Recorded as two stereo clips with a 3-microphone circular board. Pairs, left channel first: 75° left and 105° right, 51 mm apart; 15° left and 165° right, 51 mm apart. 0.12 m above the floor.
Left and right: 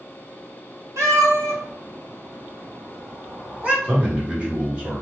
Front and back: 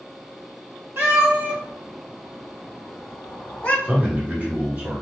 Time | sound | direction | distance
1.0 | a cat meowing | 120° right | 1.3 m
3.8 | a man speaking | 145° right | 1.9 m